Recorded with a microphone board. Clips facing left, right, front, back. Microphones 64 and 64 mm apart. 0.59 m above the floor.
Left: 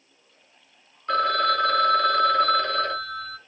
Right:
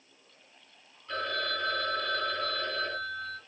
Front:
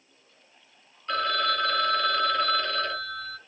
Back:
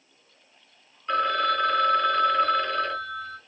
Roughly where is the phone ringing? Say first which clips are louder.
Left 11 dB, back 3 dB; left.